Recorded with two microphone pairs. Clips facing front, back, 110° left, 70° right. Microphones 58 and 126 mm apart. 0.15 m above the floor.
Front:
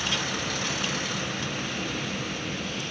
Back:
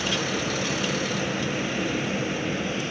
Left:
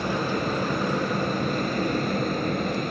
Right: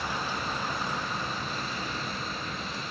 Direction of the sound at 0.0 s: 130° left.